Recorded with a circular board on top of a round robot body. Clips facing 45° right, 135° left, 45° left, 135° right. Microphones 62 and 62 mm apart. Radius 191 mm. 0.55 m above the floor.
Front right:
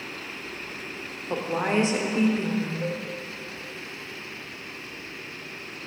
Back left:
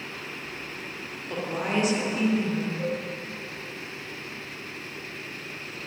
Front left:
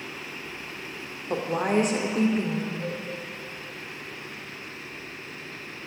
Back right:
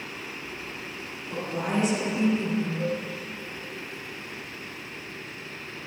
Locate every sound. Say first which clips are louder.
1.3 s a woman speaking: front right 3 dB, front left 4 dB; 15° left, 2.5 m
2.8 s a cowbell: back left 1 dB, back right 4 dB; 145° left, 4.5 m